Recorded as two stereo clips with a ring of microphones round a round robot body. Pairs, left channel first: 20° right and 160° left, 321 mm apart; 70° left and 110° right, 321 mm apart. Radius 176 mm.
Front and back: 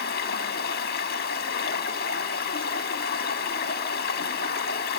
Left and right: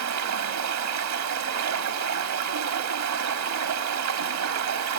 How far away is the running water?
About 1.1 m.